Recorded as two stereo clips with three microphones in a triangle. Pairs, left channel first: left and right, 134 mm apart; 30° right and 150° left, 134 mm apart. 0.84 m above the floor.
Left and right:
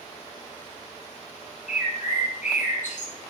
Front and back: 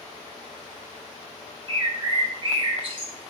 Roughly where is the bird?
Left.